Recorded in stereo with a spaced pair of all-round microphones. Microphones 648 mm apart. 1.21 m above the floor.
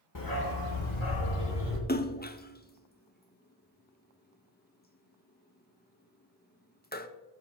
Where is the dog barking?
30° left (ahead or behind), 1.0 m; by 1.8 s 60° left (ahead or behind), 1.8 m.